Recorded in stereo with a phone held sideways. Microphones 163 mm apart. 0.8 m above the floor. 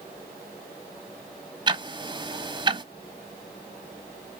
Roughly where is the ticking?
Right.